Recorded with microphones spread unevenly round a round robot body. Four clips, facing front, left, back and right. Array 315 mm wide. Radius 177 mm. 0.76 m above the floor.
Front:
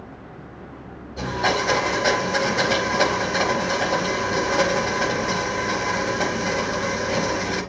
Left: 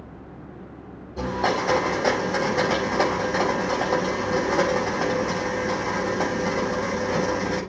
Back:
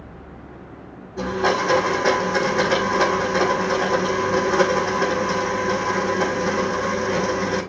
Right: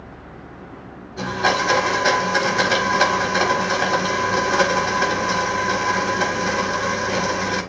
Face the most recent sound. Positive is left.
turn(degrees=95)